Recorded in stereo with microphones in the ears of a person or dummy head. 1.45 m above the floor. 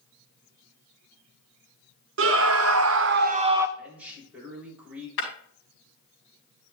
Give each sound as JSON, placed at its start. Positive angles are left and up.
{"t": 2.2, "sound": "a scream", "side_deg": -70, "distance_m": 1.2}
{"t": 3.8, "sound": "a man speaking", "side_deg": -5, "distance_m": 4.0}
{"t": 5.2, "sound": "breaking glass", "side_deg": 75, "distance_m": 4.5}